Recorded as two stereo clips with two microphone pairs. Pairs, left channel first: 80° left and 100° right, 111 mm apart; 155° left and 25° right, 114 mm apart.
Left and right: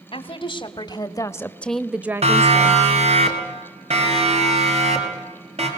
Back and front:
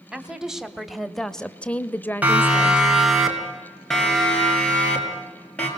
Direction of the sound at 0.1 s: 55° left.